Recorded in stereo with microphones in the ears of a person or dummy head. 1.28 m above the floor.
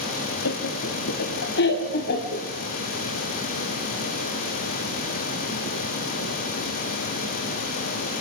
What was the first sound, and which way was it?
Laughter, 85° left.